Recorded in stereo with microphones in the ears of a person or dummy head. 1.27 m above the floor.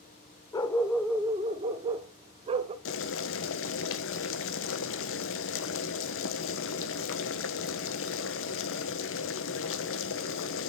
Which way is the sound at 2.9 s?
60° left (ahead or behind).